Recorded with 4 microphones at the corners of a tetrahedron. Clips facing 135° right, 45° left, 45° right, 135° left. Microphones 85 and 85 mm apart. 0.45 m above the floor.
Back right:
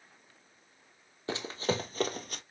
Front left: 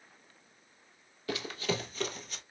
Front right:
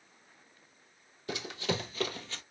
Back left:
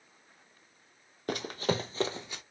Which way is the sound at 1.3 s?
165° left.